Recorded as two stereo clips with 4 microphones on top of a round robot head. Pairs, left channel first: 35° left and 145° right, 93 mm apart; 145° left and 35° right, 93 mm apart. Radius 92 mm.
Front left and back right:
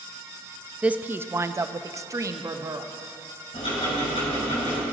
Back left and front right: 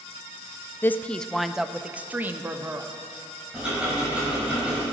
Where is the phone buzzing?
No phone buzzing in this recording.